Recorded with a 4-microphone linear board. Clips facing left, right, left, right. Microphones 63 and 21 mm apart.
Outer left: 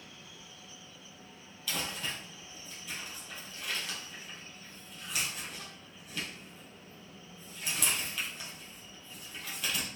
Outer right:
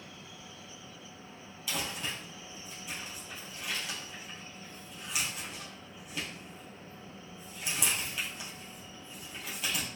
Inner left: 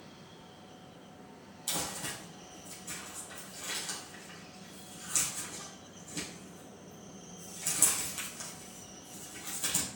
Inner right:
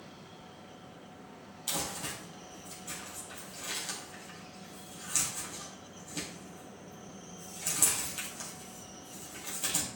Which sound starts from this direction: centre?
Crumpling, at 1.7 s.